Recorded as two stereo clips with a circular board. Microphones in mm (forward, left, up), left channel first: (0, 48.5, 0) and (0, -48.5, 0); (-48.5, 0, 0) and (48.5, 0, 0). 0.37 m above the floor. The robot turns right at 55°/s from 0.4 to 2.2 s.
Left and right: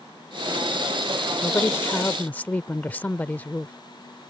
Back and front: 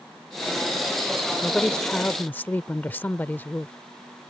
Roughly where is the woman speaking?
Left.